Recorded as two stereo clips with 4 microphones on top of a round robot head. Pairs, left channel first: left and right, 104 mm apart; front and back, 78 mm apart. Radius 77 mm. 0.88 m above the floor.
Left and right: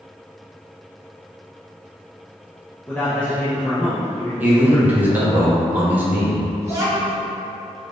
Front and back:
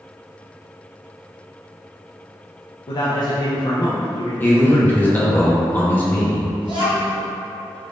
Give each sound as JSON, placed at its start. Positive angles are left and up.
{"t": 2.9, "sound": "a man speaking", "azimuth_deg": 15, "distance_m": 0.6}
{"t": 4.4, "sound": "a man speaking", "azimuth_deg": -35, "distance_m": 0.9}
{"t": 6.6, "sound": "a child speaking", "azimuth_deg": -155, "distance_m": 1.1}